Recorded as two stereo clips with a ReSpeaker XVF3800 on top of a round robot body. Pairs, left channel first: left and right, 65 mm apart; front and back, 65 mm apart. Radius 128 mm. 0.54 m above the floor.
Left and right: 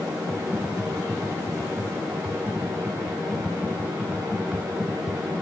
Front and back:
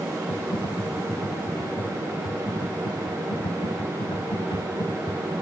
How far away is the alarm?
No alarm in this recording.